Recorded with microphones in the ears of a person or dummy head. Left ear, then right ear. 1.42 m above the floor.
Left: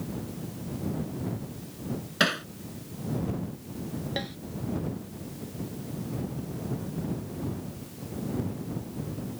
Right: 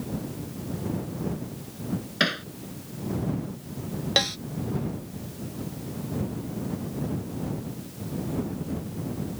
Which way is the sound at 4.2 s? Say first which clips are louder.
Right 12 dB; 50° right (ahead or behind).